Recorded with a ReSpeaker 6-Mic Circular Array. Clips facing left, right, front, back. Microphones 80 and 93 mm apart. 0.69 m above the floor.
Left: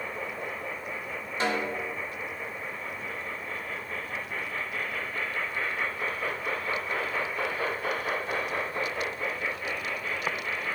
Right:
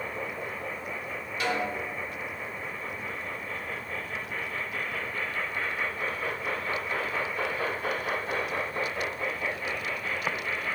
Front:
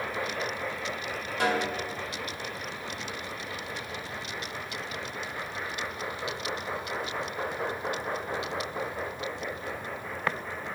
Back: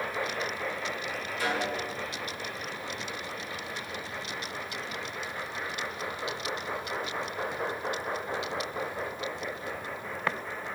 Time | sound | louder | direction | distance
1.4 | a snare drum | left 1 dB, front 3 dB | 30° left | 1.1 m